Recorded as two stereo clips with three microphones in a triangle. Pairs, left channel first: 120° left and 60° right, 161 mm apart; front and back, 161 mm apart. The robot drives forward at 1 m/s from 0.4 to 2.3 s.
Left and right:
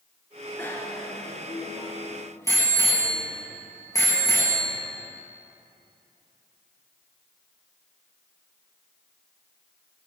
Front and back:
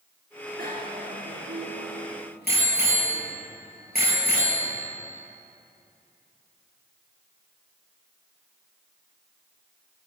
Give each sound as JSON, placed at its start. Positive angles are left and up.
{"t": 0.6, "sound": "a bicycle bell", "azimuth_deg": -165, "distance_m": 2.5}